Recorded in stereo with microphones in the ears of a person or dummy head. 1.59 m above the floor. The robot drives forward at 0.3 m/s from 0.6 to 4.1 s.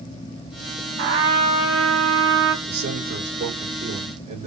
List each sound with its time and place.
1.0 s a trumpet: 65° right (ahead or behind), 3.5 m
2.6 s a man speaking: 55° right (ahead or behind), 3 m; by 4.5 s 45° right (ahead or behind), 3.5 m